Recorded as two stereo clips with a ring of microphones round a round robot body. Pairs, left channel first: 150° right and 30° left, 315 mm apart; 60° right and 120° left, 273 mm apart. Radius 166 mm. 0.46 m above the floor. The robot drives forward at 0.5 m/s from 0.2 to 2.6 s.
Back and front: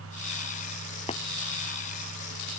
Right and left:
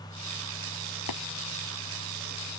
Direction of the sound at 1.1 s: 75° right.